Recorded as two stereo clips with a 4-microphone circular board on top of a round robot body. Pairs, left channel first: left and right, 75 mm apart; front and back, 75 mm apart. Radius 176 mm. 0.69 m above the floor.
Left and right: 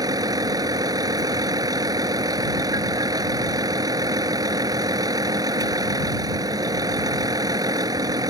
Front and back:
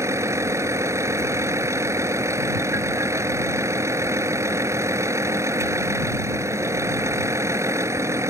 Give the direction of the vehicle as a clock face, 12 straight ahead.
4 o'clock.